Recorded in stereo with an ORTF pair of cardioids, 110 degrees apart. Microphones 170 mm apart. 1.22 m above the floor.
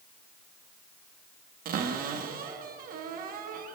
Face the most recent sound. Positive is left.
turn(degrees=-60)